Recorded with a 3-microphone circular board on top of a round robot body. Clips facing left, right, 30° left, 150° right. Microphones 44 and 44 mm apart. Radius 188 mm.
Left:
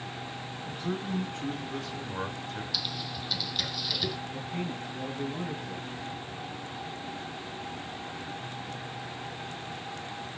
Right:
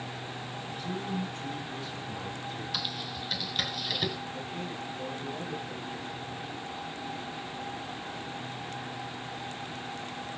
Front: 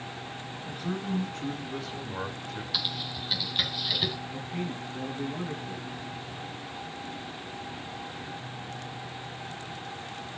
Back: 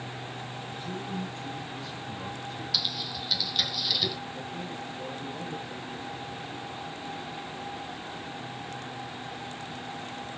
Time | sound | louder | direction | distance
0.7 | a man speaking | left 3 dB, front 6 dB | 35° left | 5.5 m
2.7 | typing on a keyboard | even, back 1 dB | 35° right | 2 m
4.3 | a man speaking | left 2 dB, front 2 dB | 25° left | 8 m